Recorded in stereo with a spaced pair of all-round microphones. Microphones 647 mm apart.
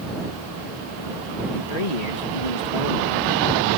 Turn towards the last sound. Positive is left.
turn(degrees=85)